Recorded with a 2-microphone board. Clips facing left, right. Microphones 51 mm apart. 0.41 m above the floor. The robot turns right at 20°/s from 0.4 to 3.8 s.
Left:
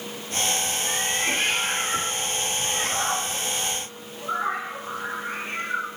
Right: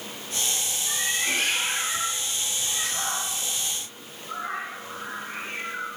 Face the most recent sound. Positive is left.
turn(degrees=65)  # may be behind; listen again after turning